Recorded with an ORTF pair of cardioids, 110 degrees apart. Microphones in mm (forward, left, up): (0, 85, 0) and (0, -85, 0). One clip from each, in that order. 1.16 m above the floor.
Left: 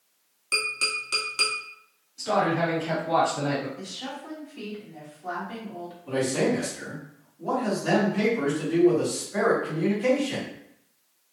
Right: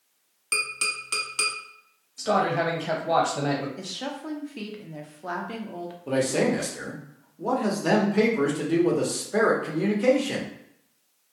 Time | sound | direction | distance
0.5 | tapping | 25° right | 1.1 m
2.2 | a man speaking | 45° right | 1.5 m
3.8 | a woman speaking | 55° right | 0.9 m
6.1 | a man speaking | 70° right | 1.2 m